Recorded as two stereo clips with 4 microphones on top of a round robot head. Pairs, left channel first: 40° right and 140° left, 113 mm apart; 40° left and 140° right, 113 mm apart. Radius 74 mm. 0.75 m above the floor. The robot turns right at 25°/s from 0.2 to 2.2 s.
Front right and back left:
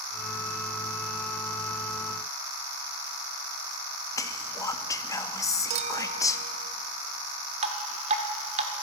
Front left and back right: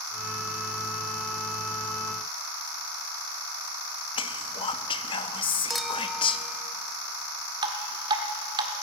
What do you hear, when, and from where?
4.2 s whispering: 15° left, 0.9 m
5.7 s a clink: 130° left, 0.7 m
7.6 s dripping: 170° left, 1.2 m